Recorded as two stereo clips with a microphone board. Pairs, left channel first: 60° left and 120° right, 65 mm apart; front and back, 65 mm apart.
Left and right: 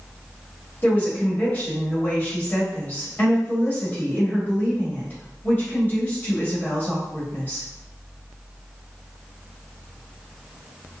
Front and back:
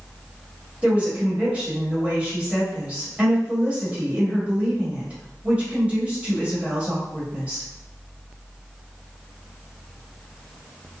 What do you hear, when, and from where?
0.8 s a woman speaking: 115° left, 1.4 m